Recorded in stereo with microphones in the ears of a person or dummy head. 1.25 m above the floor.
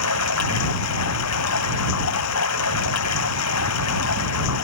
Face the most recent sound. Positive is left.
turn(degrees=75)  # may be behind; listen again after turning